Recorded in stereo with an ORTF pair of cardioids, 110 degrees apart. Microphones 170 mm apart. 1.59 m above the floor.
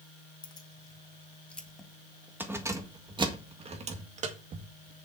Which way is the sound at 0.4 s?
25° left.